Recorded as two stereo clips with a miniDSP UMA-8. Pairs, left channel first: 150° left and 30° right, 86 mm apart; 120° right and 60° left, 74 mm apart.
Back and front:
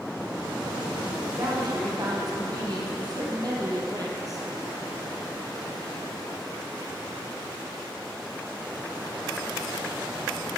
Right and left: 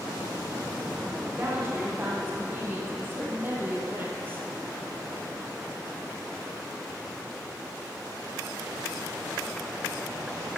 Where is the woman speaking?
5° left, 4 m.